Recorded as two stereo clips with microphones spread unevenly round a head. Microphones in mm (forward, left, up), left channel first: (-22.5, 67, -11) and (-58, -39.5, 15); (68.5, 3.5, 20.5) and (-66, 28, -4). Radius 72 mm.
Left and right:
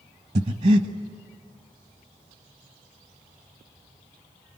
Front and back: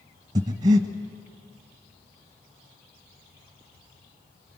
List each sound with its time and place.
0.3 s breathing: 130° right, 1.5 m